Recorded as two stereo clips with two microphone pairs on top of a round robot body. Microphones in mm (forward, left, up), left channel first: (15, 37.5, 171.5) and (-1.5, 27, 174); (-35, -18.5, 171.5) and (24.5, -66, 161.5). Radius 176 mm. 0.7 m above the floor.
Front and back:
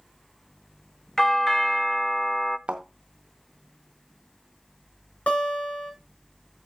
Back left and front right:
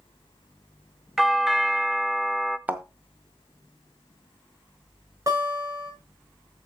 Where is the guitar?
15° left, 5.5 m.